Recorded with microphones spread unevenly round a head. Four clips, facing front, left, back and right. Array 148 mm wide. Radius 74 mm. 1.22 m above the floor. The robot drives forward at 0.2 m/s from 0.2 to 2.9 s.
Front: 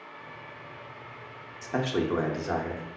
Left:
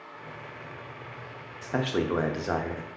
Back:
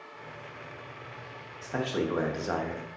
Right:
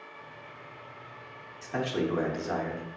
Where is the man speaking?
55° left, 0.6 m; by 2.9 s 95° left, 0.5 m.